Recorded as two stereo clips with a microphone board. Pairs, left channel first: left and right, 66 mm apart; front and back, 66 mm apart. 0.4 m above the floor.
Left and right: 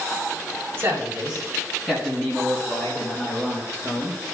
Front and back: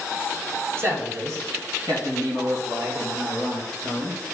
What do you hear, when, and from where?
0.8 s a man speaking: 140° right, 1.9 m; by 4.2 s 150° left, 6 m